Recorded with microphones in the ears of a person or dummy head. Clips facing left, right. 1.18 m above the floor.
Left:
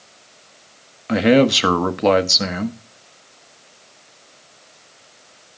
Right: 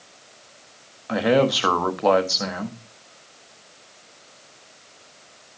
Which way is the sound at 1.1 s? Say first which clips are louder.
Left 5 dB; 30° left (ahead or behind).